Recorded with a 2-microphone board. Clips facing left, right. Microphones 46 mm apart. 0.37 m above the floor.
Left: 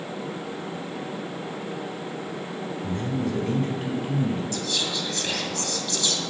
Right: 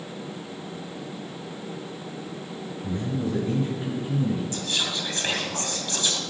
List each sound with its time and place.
2.8 s a man speaking: 60° left (ahead or behind), 4 m
4.5 s whispering: 30° right (ahead or behind), 2.5 m